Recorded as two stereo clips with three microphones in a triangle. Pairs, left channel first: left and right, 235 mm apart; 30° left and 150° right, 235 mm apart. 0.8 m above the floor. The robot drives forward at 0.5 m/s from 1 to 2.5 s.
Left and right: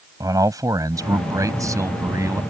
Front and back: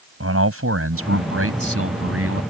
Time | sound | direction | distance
0.2 | a man speaking | 165° right | ?